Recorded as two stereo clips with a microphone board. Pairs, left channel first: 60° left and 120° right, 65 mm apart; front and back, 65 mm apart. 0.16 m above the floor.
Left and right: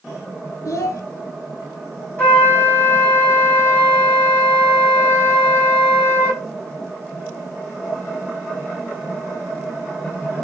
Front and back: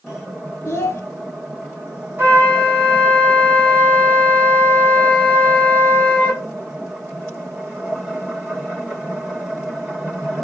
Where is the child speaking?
45° left, 1.5 m.